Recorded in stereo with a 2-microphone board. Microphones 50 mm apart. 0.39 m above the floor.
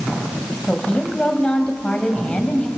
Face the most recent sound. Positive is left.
turn(degrees=25)  # may be behind; listen again after turning